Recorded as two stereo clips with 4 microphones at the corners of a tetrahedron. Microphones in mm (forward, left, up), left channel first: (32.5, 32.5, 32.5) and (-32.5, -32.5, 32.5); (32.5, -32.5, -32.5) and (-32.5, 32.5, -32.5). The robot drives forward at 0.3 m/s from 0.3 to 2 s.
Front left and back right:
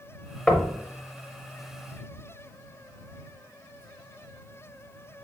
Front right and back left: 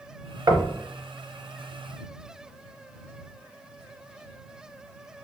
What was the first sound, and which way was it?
Knocking, 125° left.